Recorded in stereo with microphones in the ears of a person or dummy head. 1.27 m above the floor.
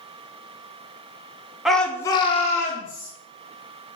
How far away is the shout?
About 0.6 m.